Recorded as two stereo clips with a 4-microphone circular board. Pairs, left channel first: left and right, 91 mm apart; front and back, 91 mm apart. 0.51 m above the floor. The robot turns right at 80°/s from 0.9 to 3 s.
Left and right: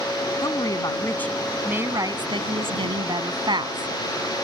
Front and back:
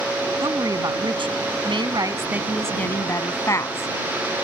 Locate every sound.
0.4 s a woman speaking: 135° left; by 3.9 s 55° right